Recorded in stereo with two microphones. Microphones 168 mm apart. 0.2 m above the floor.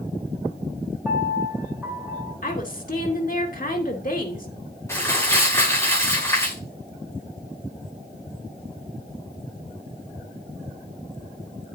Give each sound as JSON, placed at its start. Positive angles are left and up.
{"t": 1.1, "sound": "a piano", "side_deg": -5, "distance_m": 6.5}
{"t": 2.4, "sound": "a woman speaking", "side_deg": 55, "distance_m": 2.5}
{"t": 4.9, "sound": "crumpling", "side_deg": 15, "distance_m": 8.0}